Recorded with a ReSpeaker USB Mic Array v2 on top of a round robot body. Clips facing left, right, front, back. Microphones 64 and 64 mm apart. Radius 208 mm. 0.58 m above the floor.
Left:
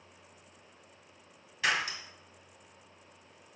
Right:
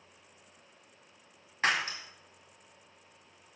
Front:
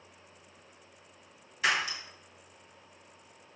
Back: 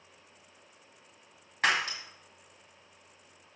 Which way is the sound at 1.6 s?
145° right.